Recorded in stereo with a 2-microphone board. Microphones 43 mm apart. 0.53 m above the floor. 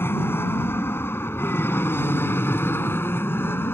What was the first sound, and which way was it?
An aircraft, 65° left (ahead or behind).